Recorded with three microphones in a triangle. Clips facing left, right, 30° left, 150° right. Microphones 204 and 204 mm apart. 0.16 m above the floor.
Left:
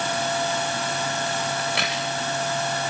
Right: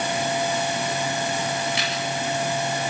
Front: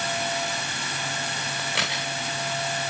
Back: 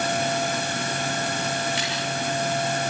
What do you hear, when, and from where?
1.6 s a crack: 50° left, 8 m